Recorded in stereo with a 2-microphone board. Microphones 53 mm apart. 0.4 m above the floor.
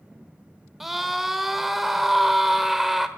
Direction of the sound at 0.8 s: 5° right (ahead or behind).